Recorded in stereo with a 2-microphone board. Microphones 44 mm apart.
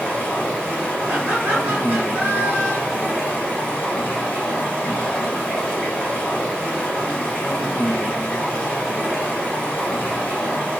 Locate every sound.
0.0 s running water: 40° left (ahead or behind), 1.1 m
1.1 s laughter: 35° right (ahead or behind), 1.3 m